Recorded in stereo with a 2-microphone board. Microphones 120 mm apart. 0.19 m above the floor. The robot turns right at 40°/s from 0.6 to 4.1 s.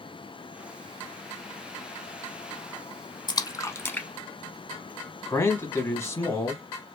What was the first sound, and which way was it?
A splash, 35° left (ahead or behind).